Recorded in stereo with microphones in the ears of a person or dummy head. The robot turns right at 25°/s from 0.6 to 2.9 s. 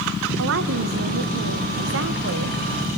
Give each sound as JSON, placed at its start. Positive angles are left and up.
{"t": 0.4, "sound": "a woman speaking", "azimuth_deg": -115, "distance_m": 0.8}